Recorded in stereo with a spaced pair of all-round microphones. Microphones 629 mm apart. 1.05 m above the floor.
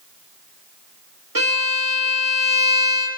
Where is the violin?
30° right (ahead or behind), 1.6 m.